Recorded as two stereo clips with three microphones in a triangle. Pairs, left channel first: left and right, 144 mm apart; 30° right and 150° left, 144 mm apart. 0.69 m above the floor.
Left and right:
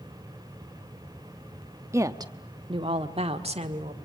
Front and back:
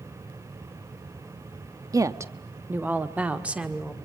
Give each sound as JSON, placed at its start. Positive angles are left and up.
{"t": 1.9, "sound": "a woman speaking", "azimuth_deg": -155, "distance_m": 0.8}